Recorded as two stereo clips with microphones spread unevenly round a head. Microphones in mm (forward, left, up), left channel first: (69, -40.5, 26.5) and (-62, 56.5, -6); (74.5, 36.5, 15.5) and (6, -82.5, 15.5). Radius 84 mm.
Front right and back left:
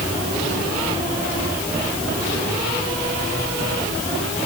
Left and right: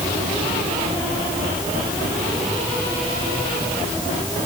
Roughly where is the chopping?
No chopping in this recording.